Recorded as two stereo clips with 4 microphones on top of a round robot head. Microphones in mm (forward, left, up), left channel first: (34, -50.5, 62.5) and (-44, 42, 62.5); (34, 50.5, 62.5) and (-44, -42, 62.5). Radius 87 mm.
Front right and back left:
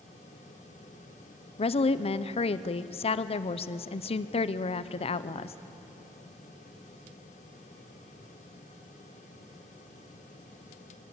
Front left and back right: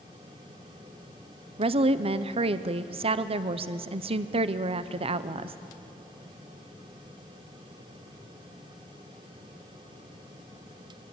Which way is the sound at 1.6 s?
90° right.